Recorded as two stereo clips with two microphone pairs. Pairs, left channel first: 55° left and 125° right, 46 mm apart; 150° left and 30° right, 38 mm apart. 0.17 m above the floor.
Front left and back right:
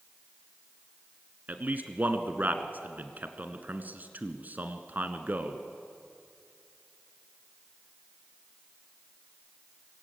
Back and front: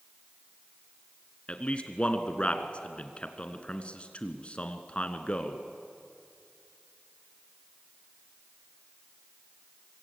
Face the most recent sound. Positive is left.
turn(degrees=-165)